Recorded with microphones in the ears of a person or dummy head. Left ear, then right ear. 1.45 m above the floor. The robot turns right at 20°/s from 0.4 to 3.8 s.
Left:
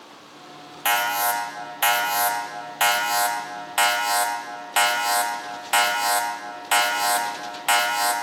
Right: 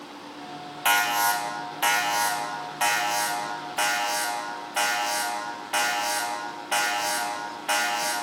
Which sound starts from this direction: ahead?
An alarm, at 0.8 s.